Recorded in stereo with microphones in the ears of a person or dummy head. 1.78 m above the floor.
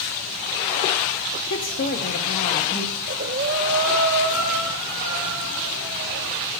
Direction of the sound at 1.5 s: 65° left (ahead or behind).